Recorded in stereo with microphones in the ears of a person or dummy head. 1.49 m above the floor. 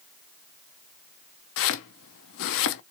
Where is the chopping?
70° left (ahead or behind), 0.5 m.